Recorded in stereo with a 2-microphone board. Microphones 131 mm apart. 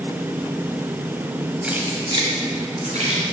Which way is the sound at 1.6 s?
10° right (ahead or behind).